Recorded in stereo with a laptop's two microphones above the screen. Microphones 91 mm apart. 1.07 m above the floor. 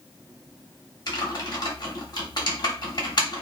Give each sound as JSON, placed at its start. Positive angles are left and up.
{"t": 1.1, "sound": "typing on a keyboard", "side_deg": 50, "distance_m": 0.9}